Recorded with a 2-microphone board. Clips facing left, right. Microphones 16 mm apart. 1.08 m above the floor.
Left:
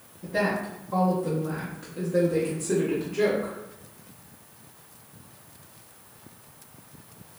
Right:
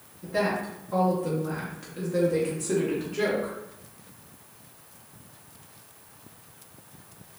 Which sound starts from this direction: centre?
A woman speaking, at 0.2 s.